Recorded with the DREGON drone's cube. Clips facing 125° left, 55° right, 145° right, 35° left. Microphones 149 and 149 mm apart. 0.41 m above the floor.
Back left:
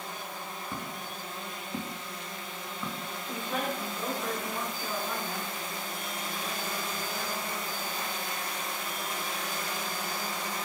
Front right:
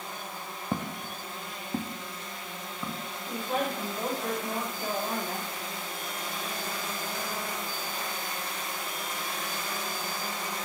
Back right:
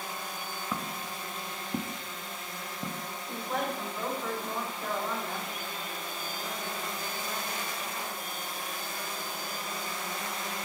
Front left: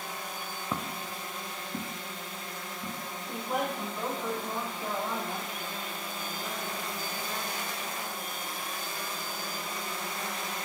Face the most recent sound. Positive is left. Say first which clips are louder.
# front right 3 dB, front left 1 dB
turn(degrees=-35)